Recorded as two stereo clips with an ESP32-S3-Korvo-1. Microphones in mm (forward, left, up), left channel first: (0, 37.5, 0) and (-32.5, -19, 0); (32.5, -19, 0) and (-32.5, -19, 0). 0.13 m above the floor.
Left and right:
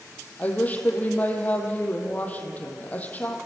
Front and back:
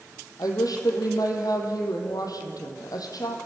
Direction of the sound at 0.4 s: 5° right.